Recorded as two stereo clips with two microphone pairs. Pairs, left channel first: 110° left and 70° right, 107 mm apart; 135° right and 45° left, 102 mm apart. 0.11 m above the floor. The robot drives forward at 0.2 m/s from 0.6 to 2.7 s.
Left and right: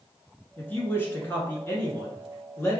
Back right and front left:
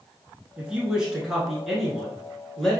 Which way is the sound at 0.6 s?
95° left.